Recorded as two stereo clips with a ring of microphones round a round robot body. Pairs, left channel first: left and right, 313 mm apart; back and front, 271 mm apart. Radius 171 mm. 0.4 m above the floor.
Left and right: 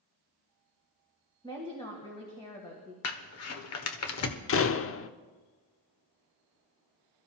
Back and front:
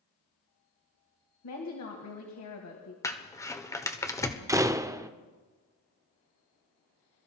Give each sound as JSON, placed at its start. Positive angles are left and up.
{"t": 1.4, "sound": "a woman speaking", "azimuth_deg": 165, "distance_m": 2.5}
{"t": 3.0, "sound": "crumpling", "azimuth_deg": 105, "distance_m": 1.3}
{"t": 4.5, "sound": "a door slam", "azimuth_deg": 75, "distance_m": 0.7}